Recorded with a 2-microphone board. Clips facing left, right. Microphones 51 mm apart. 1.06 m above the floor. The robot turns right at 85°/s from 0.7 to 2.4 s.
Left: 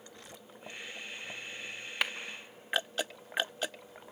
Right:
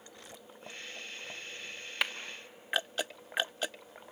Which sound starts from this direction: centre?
A clap, at 2.0 s.